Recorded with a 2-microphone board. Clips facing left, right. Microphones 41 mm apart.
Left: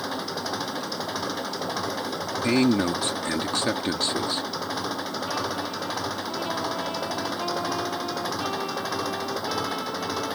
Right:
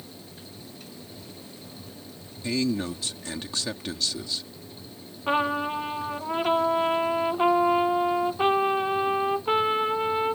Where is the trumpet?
35° right (ahead or behind).